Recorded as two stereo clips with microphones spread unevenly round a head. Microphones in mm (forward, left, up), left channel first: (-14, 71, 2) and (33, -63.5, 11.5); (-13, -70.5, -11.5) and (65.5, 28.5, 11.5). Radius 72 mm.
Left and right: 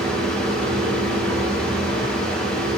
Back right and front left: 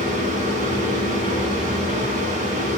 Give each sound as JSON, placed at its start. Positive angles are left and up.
{"t": 0.0, "sound": "a fan", "azimuth_deg": 25, "distance_m": 1.9}